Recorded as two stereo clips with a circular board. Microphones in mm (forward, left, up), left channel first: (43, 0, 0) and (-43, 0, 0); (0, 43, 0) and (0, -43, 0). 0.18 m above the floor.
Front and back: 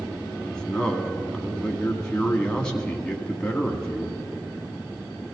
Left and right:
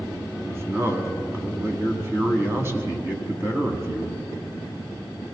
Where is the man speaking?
70° right, 1.6 m.